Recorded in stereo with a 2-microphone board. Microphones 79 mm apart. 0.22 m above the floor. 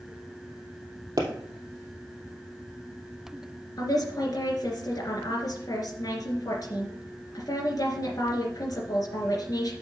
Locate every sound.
1.2 s a pop: 50° right (ahead or behind), 2.5 m
3.8 s a woman speaking: 50° left (ahead or behind), 3 m